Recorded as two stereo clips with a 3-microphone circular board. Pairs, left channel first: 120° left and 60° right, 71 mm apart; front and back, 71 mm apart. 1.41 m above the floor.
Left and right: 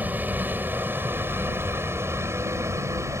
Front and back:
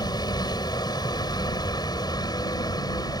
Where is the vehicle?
5° left; by 3.2 s 15° right.